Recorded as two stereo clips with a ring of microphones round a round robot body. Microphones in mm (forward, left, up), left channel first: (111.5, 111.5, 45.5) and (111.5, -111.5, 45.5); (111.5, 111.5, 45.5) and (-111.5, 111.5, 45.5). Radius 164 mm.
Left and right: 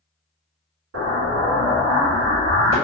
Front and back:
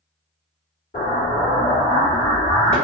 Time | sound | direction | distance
0.9 | an explosion | 65° right | 1.5 m